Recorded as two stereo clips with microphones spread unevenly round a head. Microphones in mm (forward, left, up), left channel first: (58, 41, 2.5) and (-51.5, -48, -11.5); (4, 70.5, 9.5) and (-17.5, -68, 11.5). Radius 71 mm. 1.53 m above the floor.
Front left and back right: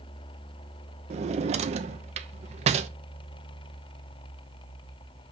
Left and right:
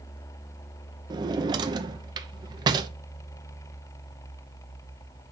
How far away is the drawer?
About 0.7 m.